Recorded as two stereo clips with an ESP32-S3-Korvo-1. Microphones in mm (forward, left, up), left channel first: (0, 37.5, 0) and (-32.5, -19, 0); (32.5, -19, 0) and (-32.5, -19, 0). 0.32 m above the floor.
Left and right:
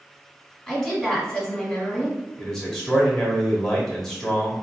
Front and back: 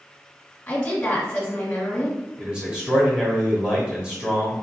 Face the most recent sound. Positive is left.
turn(degrees=135)